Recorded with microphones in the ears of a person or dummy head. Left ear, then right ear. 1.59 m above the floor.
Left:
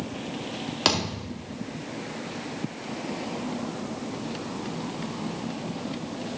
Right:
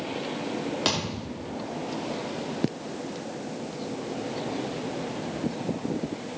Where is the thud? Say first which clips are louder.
Left 6 dB; 15° left (ahead or behind), 1.9 m.